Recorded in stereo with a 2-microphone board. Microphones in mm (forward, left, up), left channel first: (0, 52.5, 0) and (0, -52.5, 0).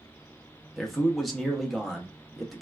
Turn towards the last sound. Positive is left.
turn(degrees=0)  # may be behind; listen again after turning